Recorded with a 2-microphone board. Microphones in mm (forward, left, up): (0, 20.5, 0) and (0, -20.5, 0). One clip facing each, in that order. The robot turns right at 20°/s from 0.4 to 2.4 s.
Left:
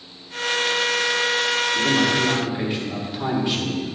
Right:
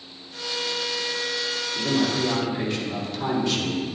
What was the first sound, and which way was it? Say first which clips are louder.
A man speaking: left 2 dB; 30° left (ahead or behind).